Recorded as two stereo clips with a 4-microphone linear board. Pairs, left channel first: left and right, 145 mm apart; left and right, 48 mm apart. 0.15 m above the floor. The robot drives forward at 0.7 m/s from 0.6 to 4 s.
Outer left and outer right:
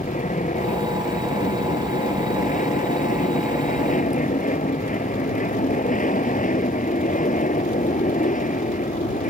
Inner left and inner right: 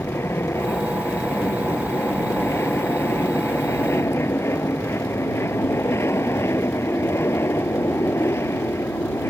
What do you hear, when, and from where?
0.0 s an aircraft: 60° left (ahead or behind)